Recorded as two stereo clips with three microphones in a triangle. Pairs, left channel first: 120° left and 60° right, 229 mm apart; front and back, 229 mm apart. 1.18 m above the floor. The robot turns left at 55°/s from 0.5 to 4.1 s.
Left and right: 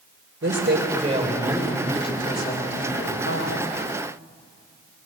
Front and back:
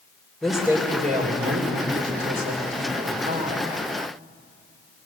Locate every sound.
0.4 s a woman speaking: 90° right, 4.5 m; by 3.7 s 95° left, 4.5 m